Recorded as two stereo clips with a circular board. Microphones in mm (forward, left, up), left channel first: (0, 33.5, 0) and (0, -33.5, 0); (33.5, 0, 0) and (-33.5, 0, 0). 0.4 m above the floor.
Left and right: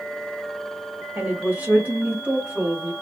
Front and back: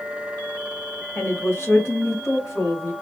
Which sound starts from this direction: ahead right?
A woman speaking, at 1.1 s.